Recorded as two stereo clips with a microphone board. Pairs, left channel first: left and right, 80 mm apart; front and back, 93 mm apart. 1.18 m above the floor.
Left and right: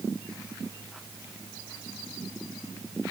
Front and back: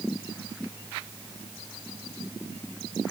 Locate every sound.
Only background noise.